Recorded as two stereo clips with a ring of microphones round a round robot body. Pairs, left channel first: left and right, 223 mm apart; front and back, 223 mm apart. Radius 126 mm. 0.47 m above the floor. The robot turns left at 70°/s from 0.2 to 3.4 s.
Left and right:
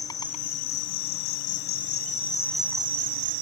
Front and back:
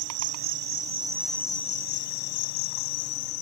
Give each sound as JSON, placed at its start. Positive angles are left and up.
{"t": 0.0, "sound": "an insect", "azimuth_deg": 165}